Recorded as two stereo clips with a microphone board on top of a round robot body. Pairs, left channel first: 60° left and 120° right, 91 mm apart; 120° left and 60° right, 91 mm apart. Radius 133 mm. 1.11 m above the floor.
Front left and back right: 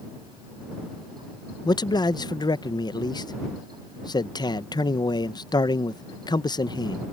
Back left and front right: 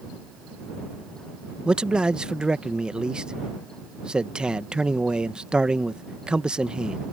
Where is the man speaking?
20° left.